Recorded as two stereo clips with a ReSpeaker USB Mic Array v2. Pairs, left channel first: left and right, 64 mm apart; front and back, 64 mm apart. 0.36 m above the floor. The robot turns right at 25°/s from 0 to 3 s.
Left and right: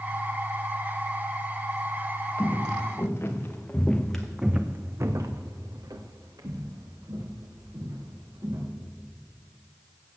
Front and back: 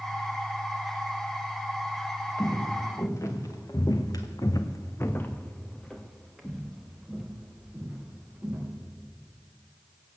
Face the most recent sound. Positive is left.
turn(degrees=-100)